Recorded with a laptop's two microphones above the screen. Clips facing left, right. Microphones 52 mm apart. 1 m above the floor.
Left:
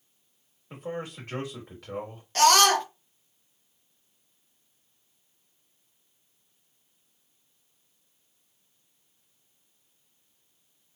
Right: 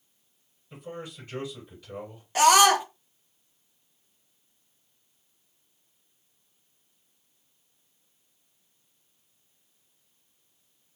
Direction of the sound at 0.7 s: 75° left (ahead or behind).